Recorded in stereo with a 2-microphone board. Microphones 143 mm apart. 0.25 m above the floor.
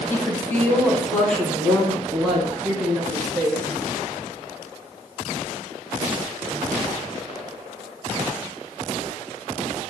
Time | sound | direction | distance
0.1 | a woman speaking | 20° left (ahead or behind) | 1.7 m